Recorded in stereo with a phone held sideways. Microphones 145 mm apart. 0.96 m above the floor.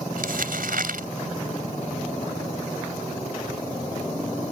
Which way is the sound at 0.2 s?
80° right.